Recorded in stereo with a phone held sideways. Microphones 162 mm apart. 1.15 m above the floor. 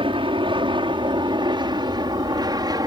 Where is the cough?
I don't hear a cough.